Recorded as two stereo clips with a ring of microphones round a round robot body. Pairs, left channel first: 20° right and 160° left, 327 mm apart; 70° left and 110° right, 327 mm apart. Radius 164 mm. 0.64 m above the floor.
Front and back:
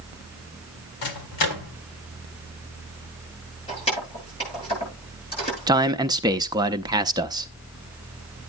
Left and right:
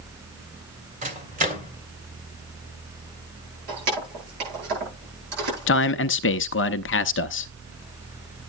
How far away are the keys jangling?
About 10 m.